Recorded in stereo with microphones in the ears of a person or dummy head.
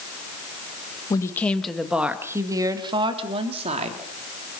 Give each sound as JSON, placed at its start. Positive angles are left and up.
{"t": 1.1, "sound": "a woman speaking", "side_deg": 20, "distance_m": 1.5}